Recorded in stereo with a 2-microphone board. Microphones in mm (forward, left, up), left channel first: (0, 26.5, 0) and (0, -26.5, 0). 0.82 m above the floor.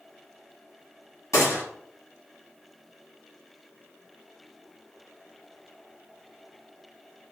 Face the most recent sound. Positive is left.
turn(degrees=75)  # may be behind; listen again after turning